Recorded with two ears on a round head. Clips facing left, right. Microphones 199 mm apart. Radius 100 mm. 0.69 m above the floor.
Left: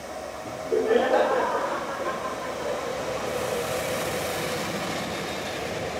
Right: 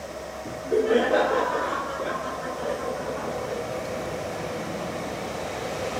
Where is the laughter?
15° right (ahead or behind), 1.7 m; by 3.6 s 30° right (ahead or behind), 3.5 m.